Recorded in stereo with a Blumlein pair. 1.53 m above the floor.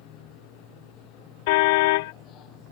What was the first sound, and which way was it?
A machine running, 35° left.